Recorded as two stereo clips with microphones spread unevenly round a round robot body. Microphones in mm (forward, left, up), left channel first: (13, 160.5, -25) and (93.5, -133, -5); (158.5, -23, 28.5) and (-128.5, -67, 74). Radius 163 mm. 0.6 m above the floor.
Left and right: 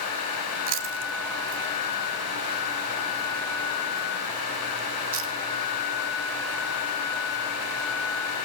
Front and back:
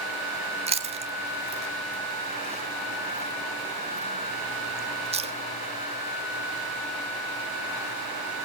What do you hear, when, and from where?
0.7 s chewing: 100° right, 1.4 m